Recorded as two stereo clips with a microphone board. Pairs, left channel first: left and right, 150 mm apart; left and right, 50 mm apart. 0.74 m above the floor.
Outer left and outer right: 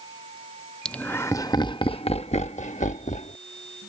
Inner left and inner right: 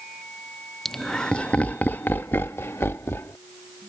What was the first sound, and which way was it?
Laughter, 5° left (ahead or behind).